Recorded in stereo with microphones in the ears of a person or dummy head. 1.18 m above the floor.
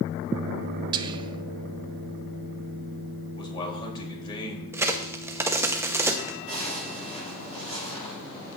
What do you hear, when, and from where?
0.9 s whispering: 20° right (ahead or behind), 0.7 m
3.4 s a man speaking: 25° left (ahead or behind), 3 m
4.7 s a crack: 15° right (ahead or behind), 0.7 m
6.5 s a zipper: 25° left (ahead or behind), 6.5 m